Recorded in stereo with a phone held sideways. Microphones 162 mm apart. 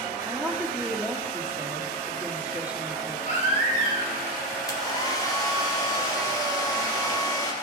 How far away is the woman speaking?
About 1.3 m.